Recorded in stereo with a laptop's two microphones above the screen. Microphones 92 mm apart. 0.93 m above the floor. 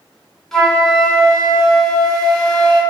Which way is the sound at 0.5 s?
5° left (ahead or behind).